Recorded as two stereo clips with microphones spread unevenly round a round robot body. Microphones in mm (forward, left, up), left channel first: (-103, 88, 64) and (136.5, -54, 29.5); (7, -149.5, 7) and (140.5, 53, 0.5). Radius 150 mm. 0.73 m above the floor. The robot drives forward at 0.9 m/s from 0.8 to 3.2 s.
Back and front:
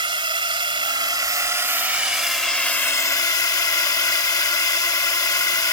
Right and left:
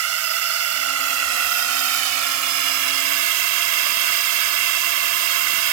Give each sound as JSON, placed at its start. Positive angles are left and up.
{"t": 0.0, "sound": "a drone", "azimuth_deg": 45}